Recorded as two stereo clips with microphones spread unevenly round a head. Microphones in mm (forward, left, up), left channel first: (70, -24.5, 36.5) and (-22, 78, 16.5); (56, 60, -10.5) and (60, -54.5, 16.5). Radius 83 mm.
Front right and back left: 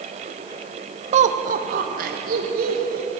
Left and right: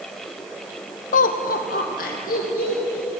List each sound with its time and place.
1.1 s laughter: 90° left, 0.7 m; by 3.1 s 115° left, 3 m